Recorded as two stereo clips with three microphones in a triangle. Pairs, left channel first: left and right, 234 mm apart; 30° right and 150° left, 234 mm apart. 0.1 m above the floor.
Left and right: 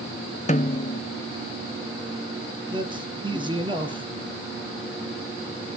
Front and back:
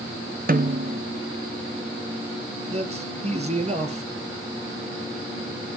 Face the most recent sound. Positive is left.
turn(degrees=-155)